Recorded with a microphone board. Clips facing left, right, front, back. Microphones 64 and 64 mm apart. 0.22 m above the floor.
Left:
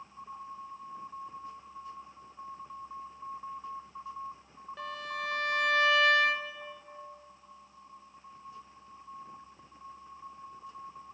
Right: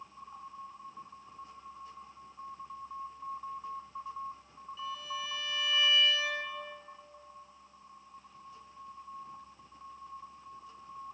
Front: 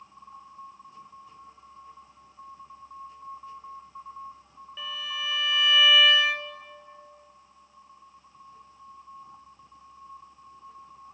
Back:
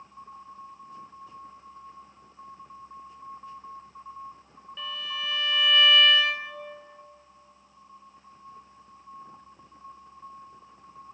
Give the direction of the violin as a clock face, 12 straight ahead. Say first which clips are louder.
Left 2 dB, even; 9 o'clock.